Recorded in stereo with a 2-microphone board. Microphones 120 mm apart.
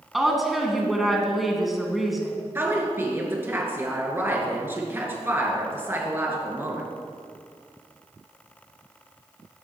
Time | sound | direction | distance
0.1 | a woman speaking | centre (ahead or behind) | 1.5 m
2.5 | a woman speaking | 20° right (ahead or behind) | 2.5 m